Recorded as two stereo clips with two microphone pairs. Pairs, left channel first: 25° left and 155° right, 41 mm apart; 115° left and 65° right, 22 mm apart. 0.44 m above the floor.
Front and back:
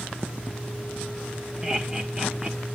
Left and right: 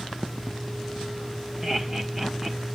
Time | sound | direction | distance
1.6 | laughter | 100° right | 1.5 m